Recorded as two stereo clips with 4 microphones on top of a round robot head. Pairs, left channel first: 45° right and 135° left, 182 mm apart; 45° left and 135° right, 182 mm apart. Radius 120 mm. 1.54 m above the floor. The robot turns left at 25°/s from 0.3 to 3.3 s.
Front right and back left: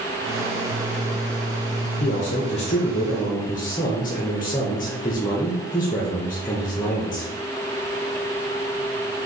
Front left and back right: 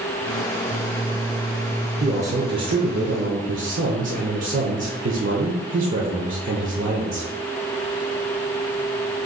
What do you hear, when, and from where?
2.0 s a man speaking: 80° right, 0.6 m; by 7.3 s 110° right, 0.6 m